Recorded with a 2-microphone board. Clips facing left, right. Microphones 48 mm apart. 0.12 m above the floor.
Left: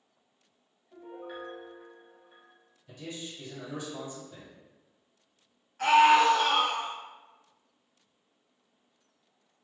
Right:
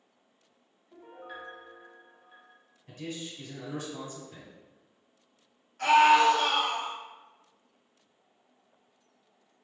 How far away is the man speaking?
About 2.0 m.